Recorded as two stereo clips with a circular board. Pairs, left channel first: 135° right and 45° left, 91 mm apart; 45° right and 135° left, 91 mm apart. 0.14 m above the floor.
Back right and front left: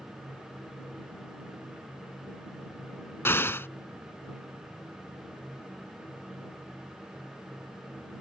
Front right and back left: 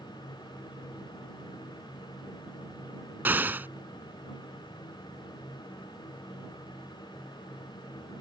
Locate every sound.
3.2 s an explosion: 175° right